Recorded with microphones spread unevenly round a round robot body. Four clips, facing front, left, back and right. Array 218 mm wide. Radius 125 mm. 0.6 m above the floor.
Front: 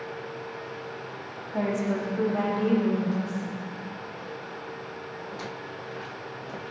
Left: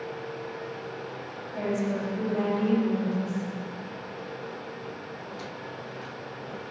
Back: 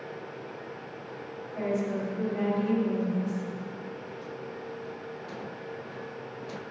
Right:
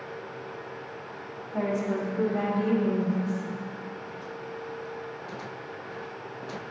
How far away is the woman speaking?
About 4 m.